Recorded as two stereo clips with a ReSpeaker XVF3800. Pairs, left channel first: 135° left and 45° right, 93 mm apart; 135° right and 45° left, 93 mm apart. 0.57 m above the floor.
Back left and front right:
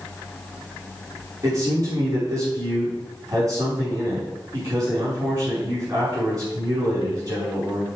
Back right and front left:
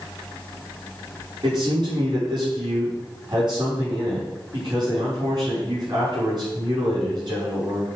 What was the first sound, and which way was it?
A man speaking, 10° left.